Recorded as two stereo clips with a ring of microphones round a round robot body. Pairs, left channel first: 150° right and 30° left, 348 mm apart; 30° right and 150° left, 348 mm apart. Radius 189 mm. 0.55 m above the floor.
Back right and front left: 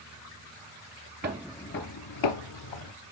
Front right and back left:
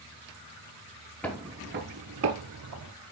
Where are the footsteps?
50° left, 0.5 m; by 2.9 s 160° right, 1.4 m.